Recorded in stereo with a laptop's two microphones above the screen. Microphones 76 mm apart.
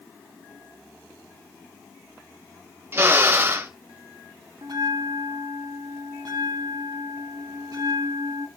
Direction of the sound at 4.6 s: 60° right (ahead or behind).